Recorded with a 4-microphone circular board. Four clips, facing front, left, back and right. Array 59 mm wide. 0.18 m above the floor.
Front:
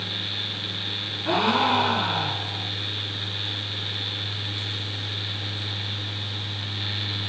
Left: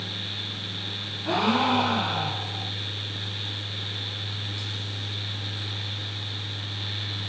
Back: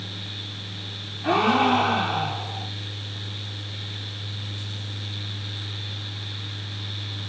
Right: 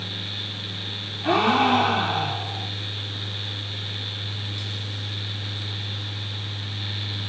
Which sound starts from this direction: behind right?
A gasp, at 1.2 s.